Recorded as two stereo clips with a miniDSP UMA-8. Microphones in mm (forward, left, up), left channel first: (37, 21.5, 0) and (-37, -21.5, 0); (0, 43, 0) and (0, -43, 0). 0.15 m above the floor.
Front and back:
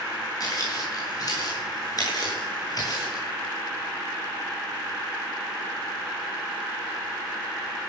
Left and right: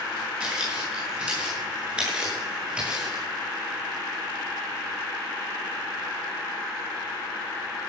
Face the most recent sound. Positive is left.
turn(degrees=-10)